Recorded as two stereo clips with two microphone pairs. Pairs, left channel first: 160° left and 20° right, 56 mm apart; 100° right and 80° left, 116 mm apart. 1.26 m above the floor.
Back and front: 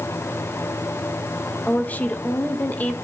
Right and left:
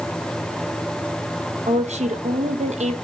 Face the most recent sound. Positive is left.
turn(degrees=95)